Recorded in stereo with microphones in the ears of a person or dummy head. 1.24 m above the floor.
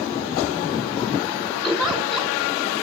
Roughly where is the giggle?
Centre.